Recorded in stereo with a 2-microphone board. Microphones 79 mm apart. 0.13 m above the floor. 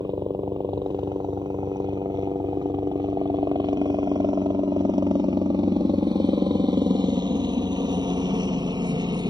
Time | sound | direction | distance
0.0 | a helicopter | 65° right (ahead or behind) | ?